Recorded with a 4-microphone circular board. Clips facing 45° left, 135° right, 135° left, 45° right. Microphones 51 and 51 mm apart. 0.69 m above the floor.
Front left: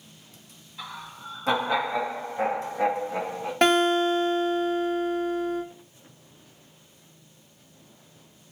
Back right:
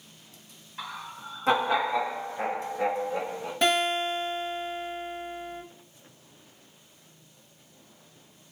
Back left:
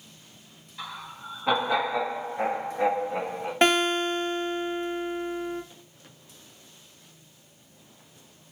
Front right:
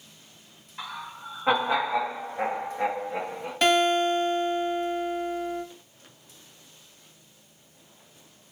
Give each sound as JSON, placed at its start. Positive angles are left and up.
{"t": 0.8, "sound": "laughter", "azimuth_deg": -95, "distance_m": 1.1}
{"t": 3.6, "sound": "a guitar", "azimuth_deg": 75, "distance_m": 1.1}